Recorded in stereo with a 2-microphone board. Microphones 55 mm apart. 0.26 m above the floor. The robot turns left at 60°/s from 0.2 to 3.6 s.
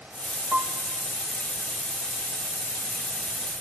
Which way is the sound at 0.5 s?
20° right (ahead or behind).